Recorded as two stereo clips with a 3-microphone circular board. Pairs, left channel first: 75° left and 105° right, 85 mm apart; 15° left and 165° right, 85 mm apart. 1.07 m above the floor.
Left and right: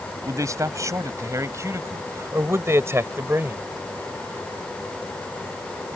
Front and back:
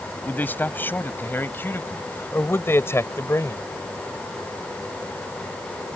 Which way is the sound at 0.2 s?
55° right.